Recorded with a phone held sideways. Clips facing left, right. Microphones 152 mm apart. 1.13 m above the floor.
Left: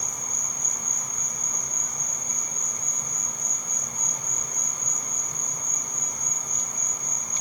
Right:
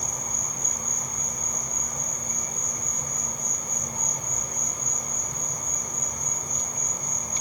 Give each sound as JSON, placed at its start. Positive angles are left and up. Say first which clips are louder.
{"t": 0.0, "sound": "an insect", "louder": "right 3 dB", "side_deg": -45, "distance_m": 2.0}